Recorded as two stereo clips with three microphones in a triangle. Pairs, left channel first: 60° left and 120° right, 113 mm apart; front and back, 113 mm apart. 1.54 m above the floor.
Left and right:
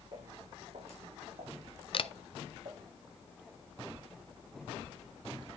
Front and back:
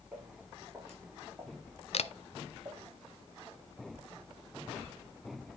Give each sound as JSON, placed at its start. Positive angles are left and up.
{"t": 0.1, "sound": "footsteps", "azimuth_deg": -100, "distance_m": 4.5}
{"t": 1.9, "sound": "a camera shutter", "azimuth_deg": 20, "distance_m": 0.5}